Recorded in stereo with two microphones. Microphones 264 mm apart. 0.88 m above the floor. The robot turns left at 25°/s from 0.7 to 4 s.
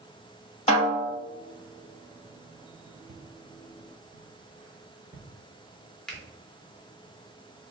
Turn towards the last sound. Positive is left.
turn(degrees=0)  # may be behind; listen again after turning